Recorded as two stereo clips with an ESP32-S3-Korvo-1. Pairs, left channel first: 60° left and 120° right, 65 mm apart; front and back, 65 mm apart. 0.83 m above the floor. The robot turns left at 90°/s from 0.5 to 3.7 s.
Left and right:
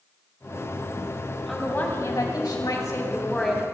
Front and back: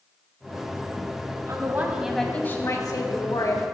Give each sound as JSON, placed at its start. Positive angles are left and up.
{"t": 1.5, "sound": "a woman speaking", "azimuth_deg": 150, "distance_m": 6.0}